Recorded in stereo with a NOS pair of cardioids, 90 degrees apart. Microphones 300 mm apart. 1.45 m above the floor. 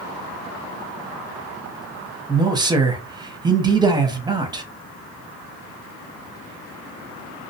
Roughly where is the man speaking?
Ahead.